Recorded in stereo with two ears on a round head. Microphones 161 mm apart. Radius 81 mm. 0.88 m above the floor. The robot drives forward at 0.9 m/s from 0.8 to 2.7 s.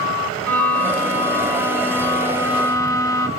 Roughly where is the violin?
Centre.